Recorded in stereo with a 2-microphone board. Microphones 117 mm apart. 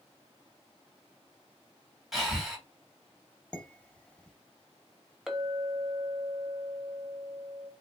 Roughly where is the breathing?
Centre.